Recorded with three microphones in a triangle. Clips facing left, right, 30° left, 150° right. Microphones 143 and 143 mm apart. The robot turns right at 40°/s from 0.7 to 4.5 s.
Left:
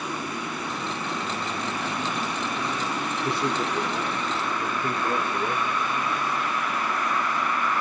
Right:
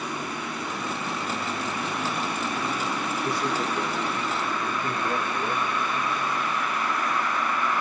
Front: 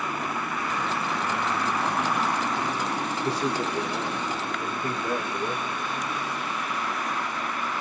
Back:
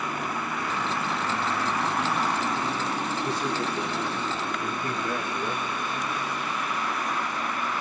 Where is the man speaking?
35° left, 1.5 m; by 5.6 s 90° left, 1.5 m.